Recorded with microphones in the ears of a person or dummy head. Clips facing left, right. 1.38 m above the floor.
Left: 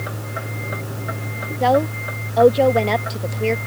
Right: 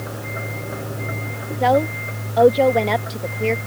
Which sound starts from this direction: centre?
A woman speaking, at 1.6 s.